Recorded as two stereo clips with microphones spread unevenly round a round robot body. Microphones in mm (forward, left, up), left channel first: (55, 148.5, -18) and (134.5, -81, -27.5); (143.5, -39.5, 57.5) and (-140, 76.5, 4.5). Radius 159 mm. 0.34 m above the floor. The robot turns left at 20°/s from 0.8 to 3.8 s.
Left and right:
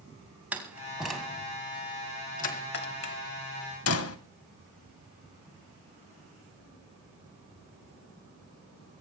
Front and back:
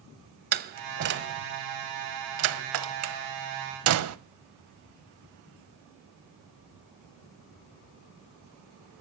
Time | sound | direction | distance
0.5 | a door slam | 155° right | 1.4 m